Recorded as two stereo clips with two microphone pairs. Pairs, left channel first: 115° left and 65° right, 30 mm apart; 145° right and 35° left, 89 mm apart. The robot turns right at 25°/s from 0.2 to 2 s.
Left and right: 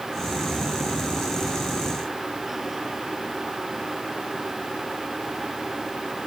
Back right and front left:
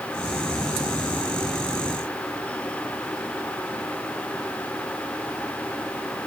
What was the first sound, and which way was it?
Only background noise.